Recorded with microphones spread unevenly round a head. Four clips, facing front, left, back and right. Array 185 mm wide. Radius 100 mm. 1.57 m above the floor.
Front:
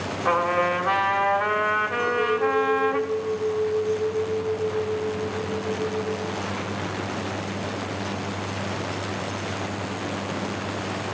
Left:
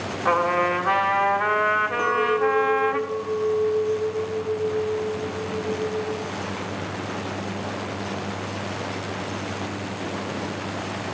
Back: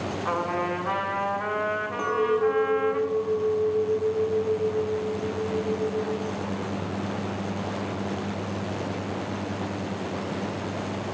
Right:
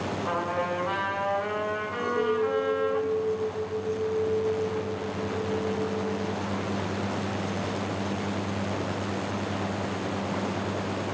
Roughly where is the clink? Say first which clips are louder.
Left 2 dB, back 2 dB; behind left.